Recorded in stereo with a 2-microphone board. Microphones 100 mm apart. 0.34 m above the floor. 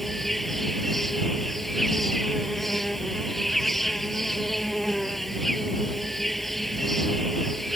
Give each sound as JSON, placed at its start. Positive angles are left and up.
{"t": 0.0, "sound": "an insect", "side_deg": 0}